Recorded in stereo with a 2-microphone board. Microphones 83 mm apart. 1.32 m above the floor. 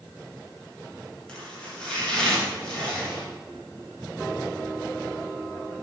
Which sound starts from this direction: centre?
Chopping, at 1.3 s.